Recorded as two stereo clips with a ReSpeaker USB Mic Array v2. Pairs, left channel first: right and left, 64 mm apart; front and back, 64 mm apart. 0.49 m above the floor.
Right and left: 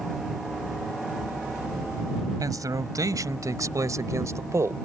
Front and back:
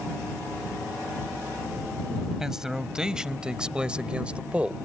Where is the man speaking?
100° left; by 4.8 s 115° left.